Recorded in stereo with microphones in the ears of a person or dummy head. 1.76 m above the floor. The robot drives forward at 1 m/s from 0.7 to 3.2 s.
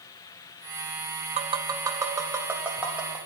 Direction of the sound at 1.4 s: 35° right (ahead or behind).